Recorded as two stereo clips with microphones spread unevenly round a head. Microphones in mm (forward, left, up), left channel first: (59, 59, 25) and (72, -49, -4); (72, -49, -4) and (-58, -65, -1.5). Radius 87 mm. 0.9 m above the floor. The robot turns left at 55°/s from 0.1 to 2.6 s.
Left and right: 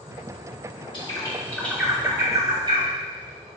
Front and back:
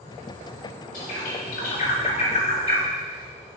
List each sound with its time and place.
0.9 s a bird: 50° left, 2.5 m; by 2.9 s 40° right, 2.5 m